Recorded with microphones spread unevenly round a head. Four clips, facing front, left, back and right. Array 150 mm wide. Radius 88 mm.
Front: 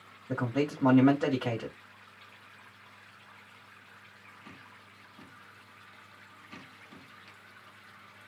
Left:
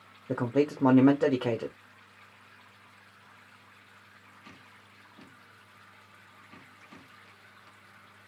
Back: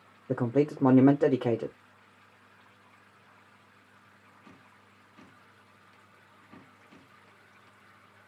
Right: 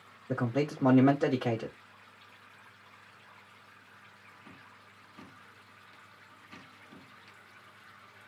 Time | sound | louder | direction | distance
0.3 | a man speaking | left 4 dB, back 4 dB | 165° left | 0.9 m